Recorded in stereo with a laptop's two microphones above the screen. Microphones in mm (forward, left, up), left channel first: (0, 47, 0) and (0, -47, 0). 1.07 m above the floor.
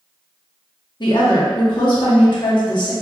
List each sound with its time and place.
1.0 s a woman speaking: 50° left (ahead or behind), 0.9 m